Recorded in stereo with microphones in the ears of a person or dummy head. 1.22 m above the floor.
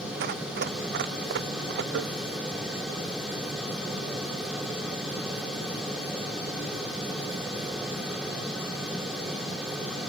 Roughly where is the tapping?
Right.